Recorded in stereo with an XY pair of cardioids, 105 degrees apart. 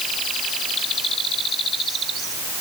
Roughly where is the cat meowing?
No cat meowing in this recording.